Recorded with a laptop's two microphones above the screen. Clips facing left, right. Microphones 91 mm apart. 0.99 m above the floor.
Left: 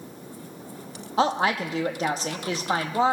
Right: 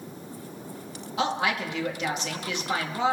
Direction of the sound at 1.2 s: 35° left (ahead or behind).